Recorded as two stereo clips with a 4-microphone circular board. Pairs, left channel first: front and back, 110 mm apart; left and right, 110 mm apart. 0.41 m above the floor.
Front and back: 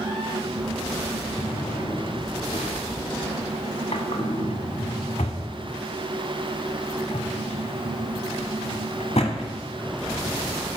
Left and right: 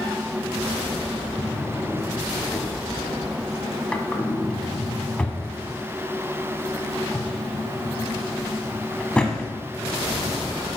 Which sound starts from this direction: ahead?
A drawer, at 1.4 s.